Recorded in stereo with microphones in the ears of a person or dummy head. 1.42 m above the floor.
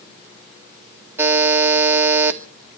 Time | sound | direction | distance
1.2 | a buzzer | 10° right (ahead or behind) | 1.9 m